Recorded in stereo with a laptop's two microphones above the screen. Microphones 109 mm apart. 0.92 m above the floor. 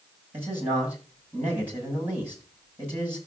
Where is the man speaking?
20° right (ahead or behind), 6.5 m.